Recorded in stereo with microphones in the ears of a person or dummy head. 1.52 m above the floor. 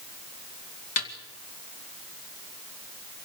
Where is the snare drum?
45° left (ahead or behind), 2 m.